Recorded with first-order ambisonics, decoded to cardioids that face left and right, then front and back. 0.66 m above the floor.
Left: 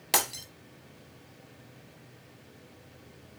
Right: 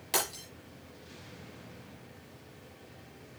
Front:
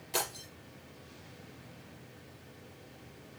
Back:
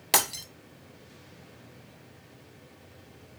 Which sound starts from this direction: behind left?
Breaking glass, at 0.1 s.